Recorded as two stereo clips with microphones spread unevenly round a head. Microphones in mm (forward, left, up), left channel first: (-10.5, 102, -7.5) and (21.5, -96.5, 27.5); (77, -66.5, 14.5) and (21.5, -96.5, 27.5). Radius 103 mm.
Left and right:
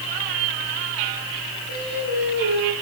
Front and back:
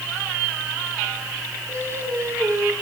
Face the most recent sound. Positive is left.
turn(degrees=-120)